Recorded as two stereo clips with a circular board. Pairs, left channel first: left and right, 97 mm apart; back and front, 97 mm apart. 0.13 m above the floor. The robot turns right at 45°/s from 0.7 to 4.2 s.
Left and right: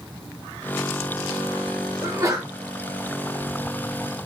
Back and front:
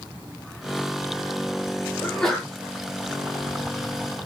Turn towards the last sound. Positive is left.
turn(degrees=-10)